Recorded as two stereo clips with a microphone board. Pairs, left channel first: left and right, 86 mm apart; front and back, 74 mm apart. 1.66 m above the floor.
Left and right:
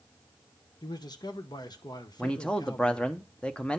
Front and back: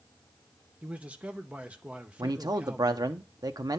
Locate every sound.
0.8 s a man speaking: 110° left, 1.0 m
2.2 s a man speaking: 165° left, 0.9 m